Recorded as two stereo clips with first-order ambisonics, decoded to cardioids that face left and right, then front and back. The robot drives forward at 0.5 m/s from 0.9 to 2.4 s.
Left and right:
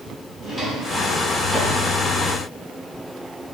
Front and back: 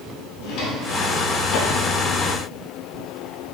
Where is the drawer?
Straight ahead, 1.0 m; by 1.9 s 5° left, 0.5 m.